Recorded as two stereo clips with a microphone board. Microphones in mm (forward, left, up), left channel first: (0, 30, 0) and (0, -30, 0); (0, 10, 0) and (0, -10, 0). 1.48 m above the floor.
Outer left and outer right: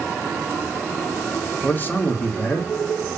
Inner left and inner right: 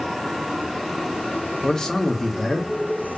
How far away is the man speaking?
About 0.9 m.